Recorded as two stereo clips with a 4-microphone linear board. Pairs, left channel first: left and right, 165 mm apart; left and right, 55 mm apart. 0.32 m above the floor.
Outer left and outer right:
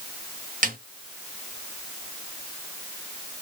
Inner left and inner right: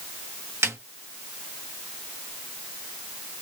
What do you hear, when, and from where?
0.6 s a snare drum: 55° right (ahead or behind), 1.3 m